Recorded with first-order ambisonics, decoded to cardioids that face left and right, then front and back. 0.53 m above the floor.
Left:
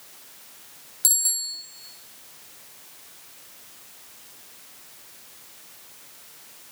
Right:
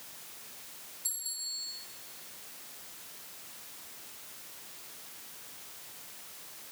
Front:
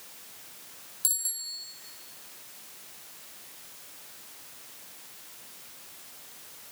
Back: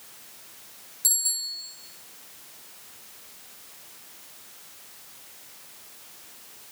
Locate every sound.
1.0 s a bicycle bell: 85° left, 2.5 m